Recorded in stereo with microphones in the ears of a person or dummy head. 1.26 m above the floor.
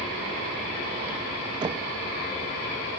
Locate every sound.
1.6 s knocking: 20° right (ahead or behind), 0.7 m